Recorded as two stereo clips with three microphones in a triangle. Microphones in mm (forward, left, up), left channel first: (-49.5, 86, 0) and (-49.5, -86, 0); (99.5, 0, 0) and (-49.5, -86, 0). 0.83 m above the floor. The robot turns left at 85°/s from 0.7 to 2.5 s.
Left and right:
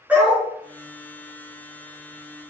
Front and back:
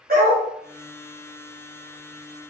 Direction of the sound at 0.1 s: 170° right.